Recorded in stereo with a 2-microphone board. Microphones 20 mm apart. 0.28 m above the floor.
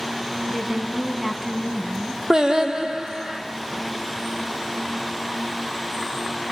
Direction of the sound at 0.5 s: 20° right (ahead or behind).